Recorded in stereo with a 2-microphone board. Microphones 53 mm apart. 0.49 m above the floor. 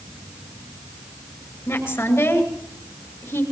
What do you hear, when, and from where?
1.7 s a woman speaking: 60° left (ahead or behind), 7 m